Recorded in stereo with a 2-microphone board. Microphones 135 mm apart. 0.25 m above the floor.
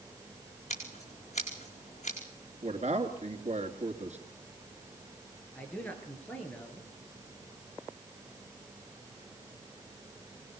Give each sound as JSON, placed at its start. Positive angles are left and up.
{"t": 0.7, "sound": "scissors", "side_deg": 55, "distance_m": 4.5}
{"t": 2.6, "sound": "a man speaking", "side_deg": -60, "distance_m": 3.0}
{"t": 5.5, "sound": "a man speaking", "side_deg": 10, "distance_m": 5.0}